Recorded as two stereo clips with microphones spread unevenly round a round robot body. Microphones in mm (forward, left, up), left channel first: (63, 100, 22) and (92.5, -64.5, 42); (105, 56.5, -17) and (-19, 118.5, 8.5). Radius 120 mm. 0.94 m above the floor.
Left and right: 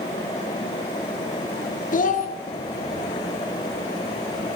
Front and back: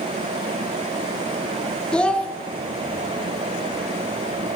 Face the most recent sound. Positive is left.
turn(degrees=60)